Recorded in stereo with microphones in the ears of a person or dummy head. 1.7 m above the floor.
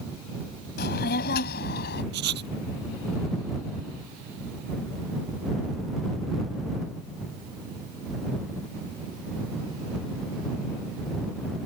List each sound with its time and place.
0.8 s a child speaking: 65° left (ahead or behind)
2.1 s writing: 55° right (ahead or behind)